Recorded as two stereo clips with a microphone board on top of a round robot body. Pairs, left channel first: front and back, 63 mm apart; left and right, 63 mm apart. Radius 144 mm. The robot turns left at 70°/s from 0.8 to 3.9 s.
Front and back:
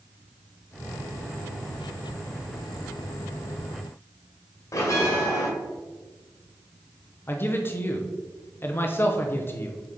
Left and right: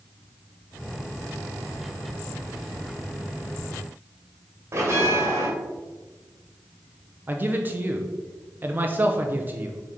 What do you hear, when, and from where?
4.7 s a bell: 40° right, 1.7 m
7.3 s a man speaking: 40° right, 0.9 m